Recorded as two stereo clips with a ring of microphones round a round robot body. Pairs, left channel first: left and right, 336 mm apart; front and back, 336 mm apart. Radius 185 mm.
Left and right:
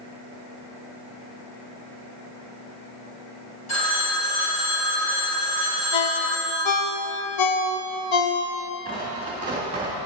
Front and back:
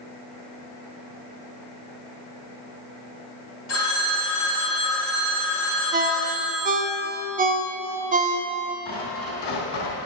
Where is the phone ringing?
45° left, 2.5 m.